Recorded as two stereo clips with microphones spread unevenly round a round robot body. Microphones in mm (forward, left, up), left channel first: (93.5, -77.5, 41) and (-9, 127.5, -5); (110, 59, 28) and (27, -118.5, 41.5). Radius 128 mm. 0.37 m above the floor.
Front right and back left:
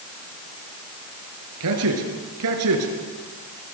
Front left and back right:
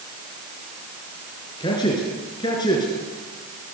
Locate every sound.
1.6 s a man speaking: 140° left, 5.5 m